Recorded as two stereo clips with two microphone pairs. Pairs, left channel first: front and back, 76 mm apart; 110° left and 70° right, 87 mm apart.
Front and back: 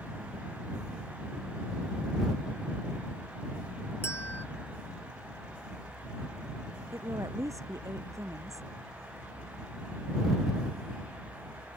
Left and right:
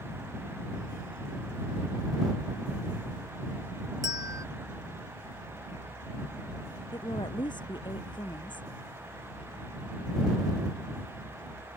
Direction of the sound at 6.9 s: 135° left.